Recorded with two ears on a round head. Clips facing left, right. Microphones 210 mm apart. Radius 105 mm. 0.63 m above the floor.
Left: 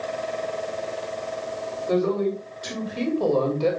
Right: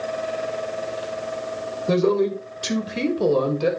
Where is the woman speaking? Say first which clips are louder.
Right 3 dB; 55° right (ahead or behind), 3 m; by 3.7 s 15° right (ahead or behind), 3 m.